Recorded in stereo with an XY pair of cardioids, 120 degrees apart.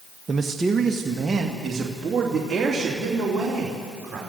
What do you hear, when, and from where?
0.3 s a man speaking: 25° right, 0.9 m; by 4.2 s 20° right, 4.5 m